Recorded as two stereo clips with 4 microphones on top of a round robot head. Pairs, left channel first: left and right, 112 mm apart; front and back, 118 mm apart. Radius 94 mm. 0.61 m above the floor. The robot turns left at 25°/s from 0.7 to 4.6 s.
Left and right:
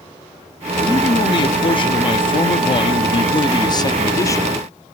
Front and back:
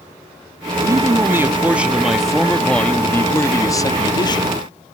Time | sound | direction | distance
0.8 | a man speaking | 125° left | 0.7 m